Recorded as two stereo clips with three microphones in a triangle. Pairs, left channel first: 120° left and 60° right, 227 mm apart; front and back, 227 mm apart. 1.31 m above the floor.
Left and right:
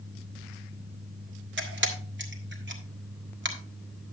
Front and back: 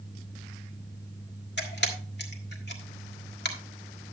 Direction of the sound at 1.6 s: 35° right.